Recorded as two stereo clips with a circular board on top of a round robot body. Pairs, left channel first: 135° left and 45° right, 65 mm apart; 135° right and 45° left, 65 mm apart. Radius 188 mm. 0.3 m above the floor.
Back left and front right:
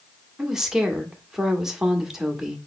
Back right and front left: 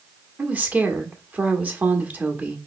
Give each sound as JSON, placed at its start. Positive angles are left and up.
{"t": 0.4, "sound": "a woman speaking", "azimuth_deg": 30, "distance_m": 1.4}